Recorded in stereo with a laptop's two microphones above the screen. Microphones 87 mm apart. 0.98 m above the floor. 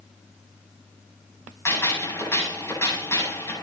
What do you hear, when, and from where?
1.6 s a gunshot: 30° left (ahead or behind), 8 m